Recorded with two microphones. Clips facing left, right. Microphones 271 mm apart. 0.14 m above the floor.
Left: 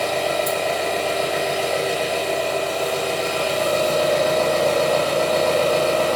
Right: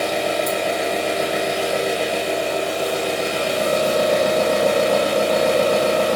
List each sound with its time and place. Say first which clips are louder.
0.0 s an engine running: right 1 dB; 15° right (ahead or behind), 0.8 m